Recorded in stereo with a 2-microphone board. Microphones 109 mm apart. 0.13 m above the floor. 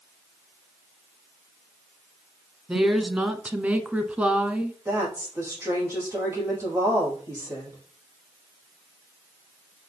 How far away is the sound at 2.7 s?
About 1.2 m.